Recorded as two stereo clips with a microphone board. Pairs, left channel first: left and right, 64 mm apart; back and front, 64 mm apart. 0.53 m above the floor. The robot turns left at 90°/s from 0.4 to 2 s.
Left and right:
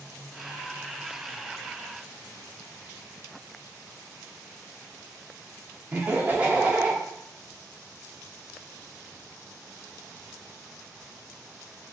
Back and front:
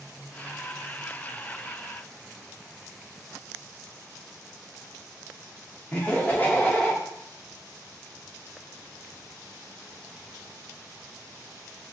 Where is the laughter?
135° right, 0.7 m.